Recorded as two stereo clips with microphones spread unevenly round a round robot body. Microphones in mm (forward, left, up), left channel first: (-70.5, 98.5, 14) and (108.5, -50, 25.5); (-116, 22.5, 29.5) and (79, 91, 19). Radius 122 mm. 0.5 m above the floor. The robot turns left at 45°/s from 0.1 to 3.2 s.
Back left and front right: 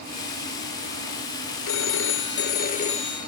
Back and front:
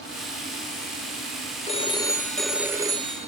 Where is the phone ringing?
145° left, 1.1 m; by 3.3 s 75° left, 1.1 m.